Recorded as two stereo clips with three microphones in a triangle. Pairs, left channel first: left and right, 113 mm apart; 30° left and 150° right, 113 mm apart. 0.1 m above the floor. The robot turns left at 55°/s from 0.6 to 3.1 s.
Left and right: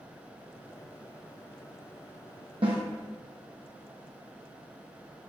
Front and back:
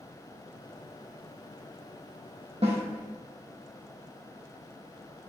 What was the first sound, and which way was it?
A snare drum, 125° right.